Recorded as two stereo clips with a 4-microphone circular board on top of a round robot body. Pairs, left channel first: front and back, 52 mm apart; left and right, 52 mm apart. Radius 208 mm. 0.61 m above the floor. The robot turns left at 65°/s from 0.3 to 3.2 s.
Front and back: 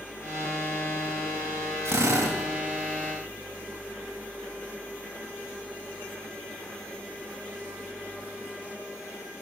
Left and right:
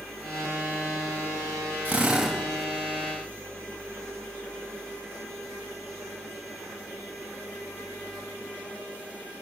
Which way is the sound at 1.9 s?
145° right.